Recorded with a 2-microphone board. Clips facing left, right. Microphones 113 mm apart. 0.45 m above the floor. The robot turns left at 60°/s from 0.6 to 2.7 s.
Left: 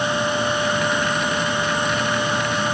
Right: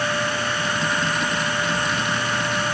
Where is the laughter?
No laughter in this recording.